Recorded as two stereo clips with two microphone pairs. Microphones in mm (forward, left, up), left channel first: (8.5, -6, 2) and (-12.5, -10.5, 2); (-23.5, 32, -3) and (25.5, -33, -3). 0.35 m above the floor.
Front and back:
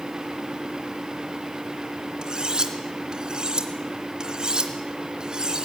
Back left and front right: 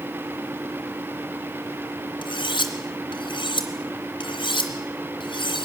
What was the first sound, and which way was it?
Cutlery clinking, 140° left.